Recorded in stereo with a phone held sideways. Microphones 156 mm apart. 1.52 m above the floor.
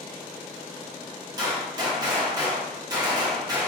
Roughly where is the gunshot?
Right.